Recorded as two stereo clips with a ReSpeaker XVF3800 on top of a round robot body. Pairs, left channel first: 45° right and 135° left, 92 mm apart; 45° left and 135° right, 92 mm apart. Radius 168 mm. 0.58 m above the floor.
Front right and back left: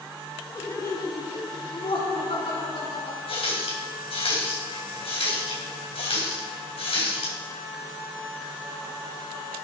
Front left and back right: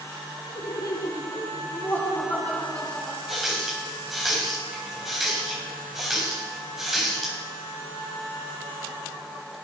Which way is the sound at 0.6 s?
10° left.